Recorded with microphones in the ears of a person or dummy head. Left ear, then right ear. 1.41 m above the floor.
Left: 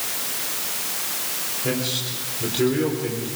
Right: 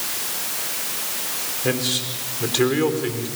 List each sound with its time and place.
1.6 s a man speaking: 30° right (ahead or behind), 3.5 m; by 3.3 s 40° right (ahead or behind), 3.5 m